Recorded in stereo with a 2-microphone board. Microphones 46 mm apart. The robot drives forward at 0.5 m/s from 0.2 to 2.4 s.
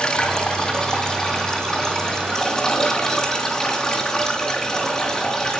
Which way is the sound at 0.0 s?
20° left (ahead or behind).